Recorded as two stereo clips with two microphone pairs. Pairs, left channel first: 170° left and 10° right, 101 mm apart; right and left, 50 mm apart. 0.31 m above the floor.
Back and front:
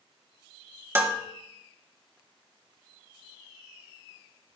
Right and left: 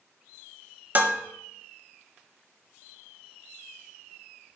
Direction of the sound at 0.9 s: 50° left.